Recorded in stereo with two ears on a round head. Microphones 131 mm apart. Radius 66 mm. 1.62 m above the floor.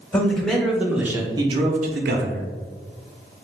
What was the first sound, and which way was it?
A man speaking, 10° left (ahead or behind).